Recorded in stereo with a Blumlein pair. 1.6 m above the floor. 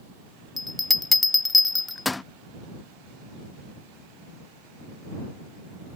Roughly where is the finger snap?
I don't hear a finger snap.